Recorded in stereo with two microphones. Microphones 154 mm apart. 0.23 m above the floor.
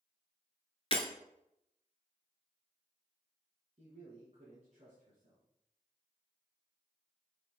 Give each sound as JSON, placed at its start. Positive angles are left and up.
{"t": 0.9, "sound": "breaking glass", "side_deg": 40, "distance_m": 1.3}
{"t": 3.8, "sound": "a man speaking", "side_deg": -50, "distance_m": 2.5}